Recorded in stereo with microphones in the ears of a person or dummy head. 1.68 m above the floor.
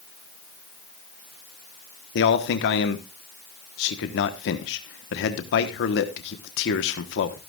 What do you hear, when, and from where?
2.1 s a man speaking: 70° left (ahead or behind), 1.2 m